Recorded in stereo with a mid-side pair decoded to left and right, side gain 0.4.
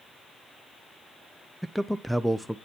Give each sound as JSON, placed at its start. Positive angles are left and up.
{"t": 1.6, "sound": "a man speaking", "azimuth_deg": -5, "distance_m": 0.6}